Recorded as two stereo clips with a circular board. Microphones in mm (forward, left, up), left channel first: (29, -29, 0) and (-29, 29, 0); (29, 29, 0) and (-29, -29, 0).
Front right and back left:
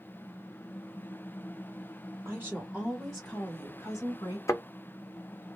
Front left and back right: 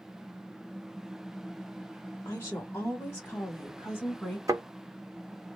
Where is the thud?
95° right, 0.6 m.